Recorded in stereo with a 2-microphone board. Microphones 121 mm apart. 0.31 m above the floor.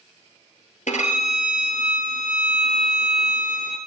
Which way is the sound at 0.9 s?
85° left.